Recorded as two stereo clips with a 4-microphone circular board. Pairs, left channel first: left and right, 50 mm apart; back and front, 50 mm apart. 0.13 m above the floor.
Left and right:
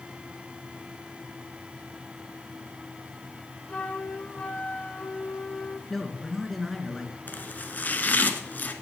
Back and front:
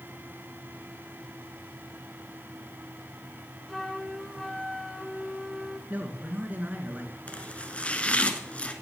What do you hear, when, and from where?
3.7 s a flute: 95° left, 1.2 m
5.9 s a man speaking: 5° left, 2.0 m
7.3 s chopping: 125° left, 1.3 m